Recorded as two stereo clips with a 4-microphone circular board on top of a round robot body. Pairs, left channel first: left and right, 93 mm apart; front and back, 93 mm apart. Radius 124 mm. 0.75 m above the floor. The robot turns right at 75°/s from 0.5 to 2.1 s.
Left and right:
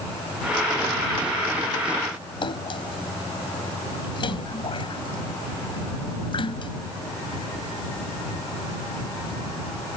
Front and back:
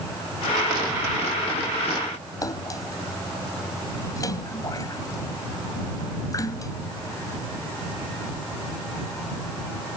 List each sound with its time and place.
2.4 s a splash: 55° left